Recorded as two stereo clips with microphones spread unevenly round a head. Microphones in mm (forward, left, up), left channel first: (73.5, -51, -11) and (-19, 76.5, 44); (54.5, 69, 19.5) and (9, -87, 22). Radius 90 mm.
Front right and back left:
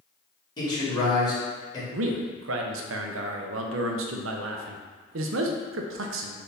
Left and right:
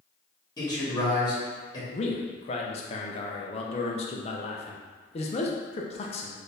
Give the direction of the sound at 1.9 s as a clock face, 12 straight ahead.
8 o'clock.